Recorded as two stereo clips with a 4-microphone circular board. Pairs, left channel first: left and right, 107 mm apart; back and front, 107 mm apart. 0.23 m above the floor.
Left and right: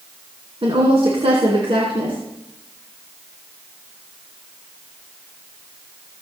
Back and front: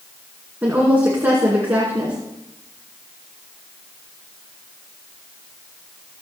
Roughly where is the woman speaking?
Right.